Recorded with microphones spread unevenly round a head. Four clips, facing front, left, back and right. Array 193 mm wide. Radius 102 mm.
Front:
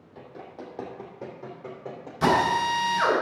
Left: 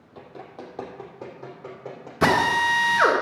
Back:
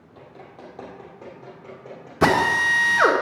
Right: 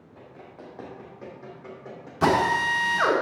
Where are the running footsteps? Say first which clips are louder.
Left 5 dB, front 2 dB; 55° left, 2.5 m; by 2.1 s 40° left, 3.5 m.